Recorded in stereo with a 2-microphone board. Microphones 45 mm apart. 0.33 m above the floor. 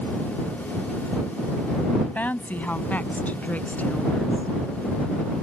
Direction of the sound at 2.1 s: 40° left (ahead or behind).